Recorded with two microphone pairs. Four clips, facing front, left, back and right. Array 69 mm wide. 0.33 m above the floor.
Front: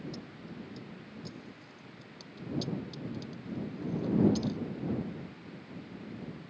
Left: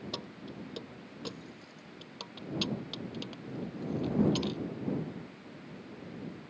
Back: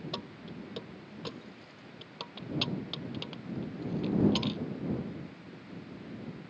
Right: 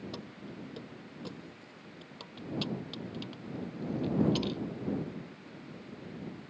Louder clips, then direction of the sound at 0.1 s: Left 1 dB, back 2 dB; 155° left.